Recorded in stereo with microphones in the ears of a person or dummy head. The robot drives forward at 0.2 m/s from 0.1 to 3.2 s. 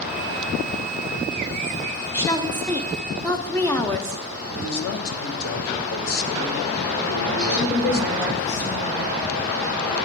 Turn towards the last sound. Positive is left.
turn(degrees=30)  # may be behind; listen again after turning